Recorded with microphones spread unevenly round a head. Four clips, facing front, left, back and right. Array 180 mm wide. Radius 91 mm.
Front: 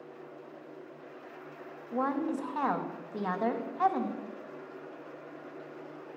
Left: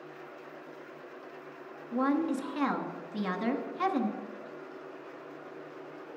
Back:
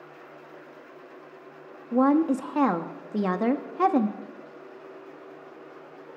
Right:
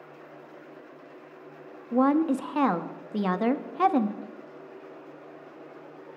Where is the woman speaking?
160° right, 1.2 m.